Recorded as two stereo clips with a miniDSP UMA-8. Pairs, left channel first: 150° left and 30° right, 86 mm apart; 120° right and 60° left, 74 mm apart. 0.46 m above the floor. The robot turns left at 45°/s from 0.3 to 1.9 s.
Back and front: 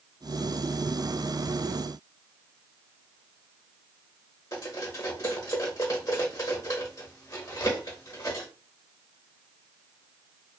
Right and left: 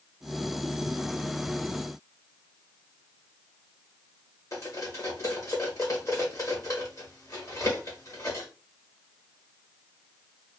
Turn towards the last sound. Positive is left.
turn(degrees=-160)